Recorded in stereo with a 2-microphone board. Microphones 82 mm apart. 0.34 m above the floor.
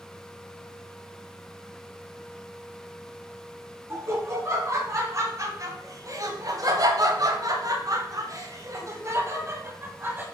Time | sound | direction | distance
3.9 | laughter | 35° right (ahead or behind) | 3 m